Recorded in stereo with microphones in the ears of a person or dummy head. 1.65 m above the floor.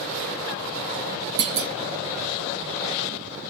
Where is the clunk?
60° right (ahead or behind), 0.9 m.